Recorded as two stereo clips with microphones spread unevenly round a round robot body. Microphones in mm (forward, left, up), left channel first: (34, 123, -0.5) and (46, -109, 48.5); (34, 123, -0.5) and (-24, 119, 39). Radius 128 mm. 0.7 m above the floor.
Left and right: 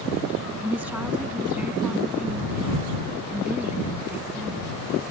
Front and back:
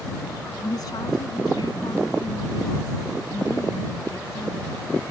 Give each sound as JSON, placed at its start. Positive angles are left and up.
{"t": 0.6, "sound": "a woman speaking", "azimuth_deg": -5}